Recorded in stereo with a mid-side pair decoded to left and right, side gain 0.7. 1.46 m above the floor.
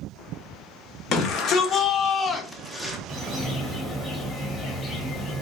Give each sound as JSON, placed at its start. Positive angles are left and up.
{"t": 1.1, "sound": "a shout", "azimuth_deg": 50, "distance_m": 1.3}
{"t": 3.1, "sound": "a bird", "azimuth_deg": 15, "distance_m": 1.5}